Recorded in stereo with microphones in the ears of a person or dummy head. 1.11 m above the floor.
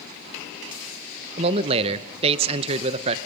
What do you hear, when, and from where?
1.4 s a man speaking: 35° right (ahead or behind), 1.2 m